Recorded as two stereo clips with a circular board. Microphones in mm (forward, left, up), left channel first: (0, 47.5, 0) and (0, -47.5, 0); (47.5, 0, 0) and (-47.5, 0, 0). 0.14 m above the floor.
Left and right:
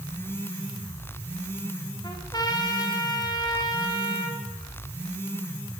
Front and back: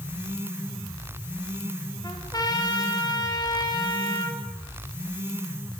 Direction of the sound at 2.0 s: 45° left.